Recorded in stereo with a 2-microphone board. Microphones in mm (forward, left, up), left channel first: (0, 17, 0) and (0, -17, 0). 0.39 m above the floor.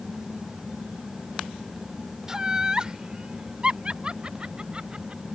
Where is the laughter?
20° right (ahead or behind); by 5.2 s 30° right (ahead or behind).